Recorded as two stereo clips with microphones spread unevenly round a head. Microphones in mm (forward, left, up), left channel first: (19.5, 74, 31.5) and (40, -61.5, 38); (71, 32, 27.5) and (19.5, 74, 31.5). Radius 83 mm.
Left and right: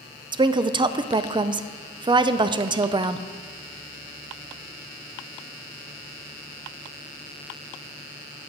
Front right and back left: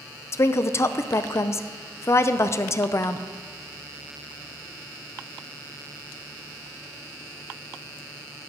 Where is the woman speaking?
35° right, 0.5 m.